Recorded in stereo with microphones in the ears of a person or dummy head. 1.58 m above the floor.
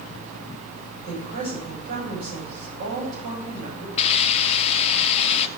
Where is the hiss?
35° left (ahead or behind), 0.7 m.